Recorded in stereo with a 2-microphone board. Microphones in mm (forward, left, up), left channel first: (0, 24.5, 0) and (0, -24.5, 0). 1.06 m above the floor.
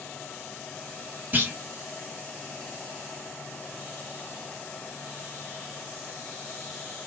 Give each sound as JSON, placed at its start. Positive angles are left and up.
{"t": 1.3, "sound": "a clunk", "side_deg": -35, "distance_m": 1.4}